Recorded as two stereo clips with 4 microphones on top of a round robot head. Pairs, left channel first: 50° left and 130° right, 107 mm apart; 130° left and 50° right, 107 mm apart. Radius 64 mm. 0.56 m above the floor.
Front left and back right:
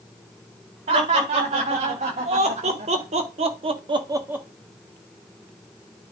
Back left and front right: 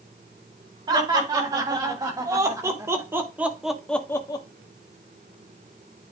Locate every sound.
0.9 s laughter: 105° right, 4 m; by 4.5 s 155° left, 0.9 m